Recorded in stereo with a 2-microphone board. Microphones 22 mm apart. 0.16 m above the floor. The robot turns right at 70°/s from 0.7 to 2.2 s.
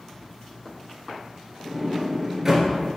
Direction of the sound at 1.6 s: 10° left (ahead or behind).